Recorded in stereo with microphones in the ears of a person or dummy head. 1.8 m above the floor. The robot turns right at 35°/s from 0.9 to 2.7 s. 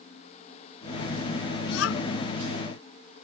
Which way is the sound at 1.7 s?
85° left.